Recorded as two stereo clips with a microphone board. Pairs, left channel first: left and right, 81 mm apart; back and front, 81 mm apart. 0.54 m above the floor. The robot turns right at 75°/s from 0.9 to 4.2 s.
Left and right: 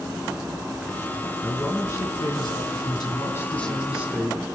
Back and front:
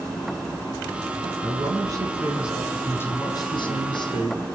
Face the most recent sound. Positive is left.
turn(degrees=-150)